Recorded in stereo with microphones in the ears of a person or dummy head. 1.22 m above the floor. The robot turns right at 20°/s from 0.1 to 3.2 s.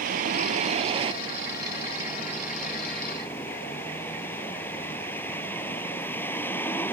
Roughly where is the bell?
No bell in this recording.